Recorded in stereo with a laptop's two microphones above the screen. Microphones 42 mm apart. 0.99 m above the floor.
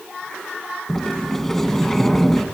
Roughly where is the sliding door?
Centre.